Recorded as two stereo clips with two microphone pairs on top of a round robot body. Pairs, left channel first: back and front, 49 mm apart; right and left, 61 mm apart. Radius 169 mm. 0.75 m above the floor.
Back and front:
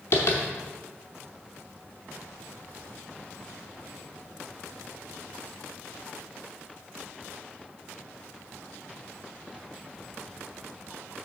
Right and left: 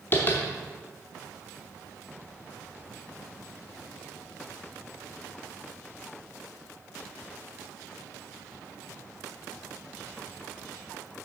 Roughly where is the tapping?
Behind right.